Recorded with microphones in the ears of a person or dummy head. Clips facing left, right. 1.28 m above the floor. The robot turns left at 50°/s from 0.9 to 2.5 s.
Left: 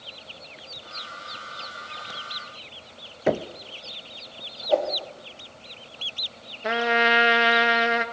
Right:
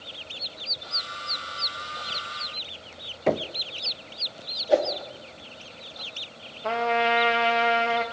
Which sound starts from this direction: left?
A trumpet, at 6.6 s.